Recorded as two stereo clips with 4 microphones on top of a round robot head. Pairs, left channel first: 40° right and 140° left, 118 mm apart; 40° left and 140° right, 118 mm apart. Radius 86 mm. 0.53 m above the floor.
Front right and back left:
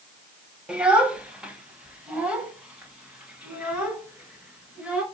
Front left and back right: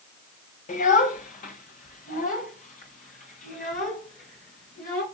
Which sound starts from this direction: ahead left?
A child speaking, at 0.7 s.